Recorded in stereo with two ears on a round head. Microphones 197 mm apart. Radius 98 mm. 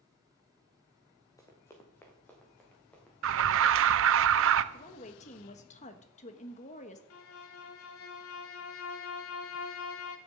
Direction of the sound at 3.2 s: 60° right (ahead or behind).